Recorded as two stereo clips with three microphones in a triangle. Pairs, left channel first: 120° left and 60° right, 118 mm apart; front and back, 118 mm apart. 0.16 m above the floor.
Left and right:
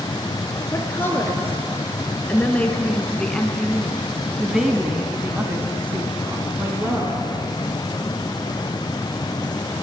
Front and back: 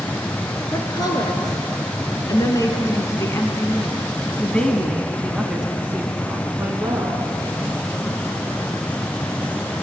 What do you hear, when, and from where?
0.7 s a woman speaking: 50° left, 3 m; by 7.2 s 120° right, 2 m